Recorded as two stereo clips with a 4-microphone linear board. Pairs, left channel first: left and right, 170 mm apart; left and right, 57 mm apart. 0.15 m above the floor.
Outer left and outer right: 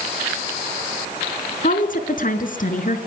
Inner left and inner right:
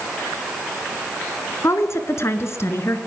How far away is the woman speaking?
About 1.9 m.